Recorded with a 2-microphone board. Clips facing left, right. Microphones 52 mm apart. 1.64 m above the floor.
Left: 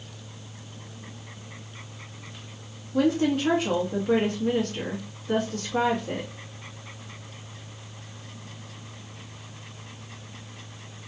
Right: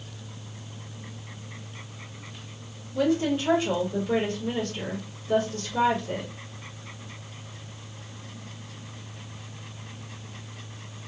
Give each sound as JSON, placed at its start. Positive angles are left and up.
{"t": 2.9, "sound": "a woman speaking", "side_deg": 80, "distance_m": 1.4}